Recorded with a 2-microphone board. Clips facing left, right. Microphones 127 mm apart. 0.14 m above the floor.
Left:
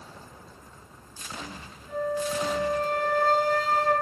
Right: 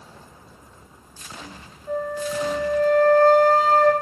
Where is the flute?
55° right (ahead or behind), 7.5 m.